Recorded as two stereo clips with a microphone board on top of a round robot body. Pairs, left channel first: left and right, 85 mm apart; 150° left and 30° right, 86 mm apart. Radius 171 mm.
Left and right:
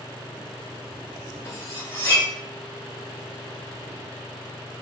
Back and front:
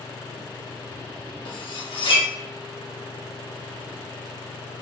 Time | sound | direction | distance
1.4 | cutlery clinking | 145° left | 1.0 m